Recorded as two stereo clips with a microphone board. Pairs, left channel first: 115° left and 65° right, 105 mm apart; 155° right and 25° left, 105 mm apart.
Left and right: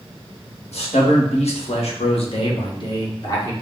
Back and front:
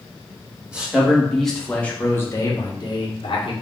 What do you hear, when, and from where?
0.7 s a man speaking: 105° left, 1.4 m; by 3.5 s 170° left, 1.2 m